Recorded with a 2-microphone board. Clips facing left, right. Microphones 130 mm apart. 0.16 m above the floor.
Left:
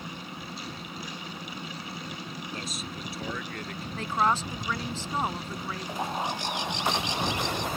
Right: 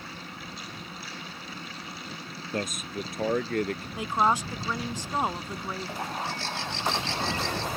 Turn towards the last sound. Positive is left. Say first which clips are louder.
# left 6 dB
turn(degrees=15)  # may be behind; listen again after turning